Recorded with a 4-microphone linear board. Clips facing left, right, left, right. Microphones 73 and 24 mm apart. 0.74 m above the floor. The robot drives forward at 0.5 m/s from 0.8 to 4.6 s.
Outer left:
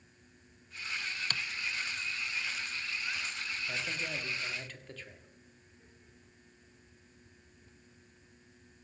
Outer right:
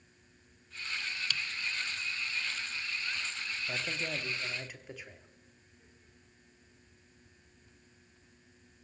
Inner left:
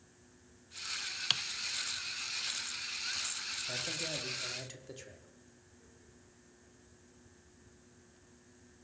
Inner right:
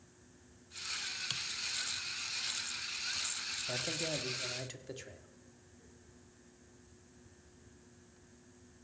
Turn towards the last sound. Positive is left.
turn(degrees=-10)  # may be behind; listen again after turning